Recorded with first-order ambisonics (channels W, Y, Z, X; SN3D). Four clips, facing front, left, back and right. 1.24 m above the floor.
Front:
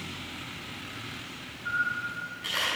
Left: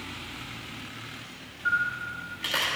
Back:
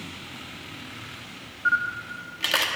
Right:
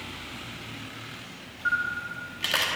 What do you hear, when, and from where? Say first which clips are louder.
1.6 s a camera shutter: even, back 5 dB; 155° right, 1.1 m